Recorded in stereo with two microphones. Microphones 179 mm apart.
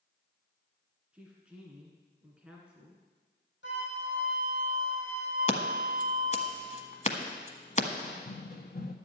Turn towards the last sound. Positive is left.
turn(degrees=55)  # may be behind; listen again after turning